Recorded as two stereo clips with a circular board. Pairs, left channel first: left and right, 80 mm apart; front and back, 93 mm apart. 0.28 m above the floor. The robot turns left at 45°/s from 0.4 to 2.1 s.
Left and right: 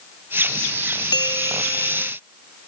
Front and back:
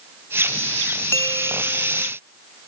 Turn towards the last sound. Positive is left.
turn(degrees=20)